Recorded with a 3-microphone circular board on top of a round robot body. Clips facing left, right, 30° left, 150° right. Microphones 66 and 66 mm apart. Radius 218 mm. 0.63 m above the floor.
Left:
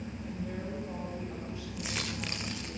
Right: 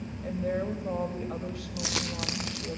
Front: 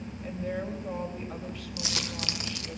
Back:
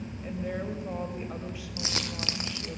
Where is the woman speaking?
65° right, 3.5 m.